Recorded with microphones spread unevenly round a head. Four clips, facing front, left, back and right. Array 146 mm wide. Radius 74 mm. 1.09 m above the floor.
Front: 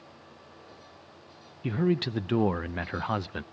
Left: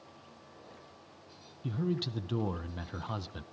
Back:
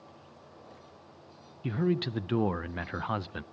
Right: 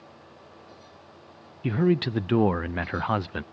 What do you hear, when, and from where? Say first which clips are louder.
1.6 s a man speaking: right 11 dB, front 2 dB; 65° right, 0.5 m